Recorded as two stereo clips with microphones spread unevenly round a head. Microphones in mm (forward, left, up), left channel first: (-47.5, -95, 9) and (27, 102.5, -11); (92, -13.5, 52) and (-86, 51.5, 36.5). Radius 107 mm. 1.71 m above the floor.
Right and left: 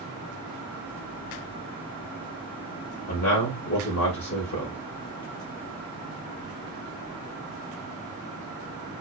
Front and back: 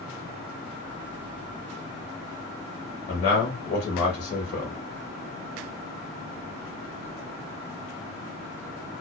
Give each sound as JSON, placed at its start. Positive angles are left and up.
{"t": 3.1, "sound": "a man speaking", "azimuth_deg": -80, "distance_m": 0.7}